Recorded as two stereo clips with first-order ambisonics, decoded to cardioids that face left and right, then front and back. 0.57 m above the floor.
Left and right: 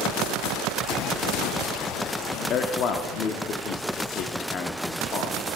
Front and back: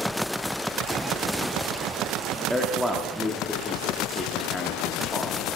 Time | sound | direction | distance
2.5 | a man speaking | 90° left | 0.7 m